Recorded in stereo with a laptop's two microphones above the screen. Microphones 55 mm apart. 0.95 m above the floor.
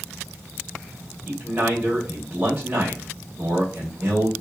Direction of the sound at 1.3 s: 35° right (ahead or behind).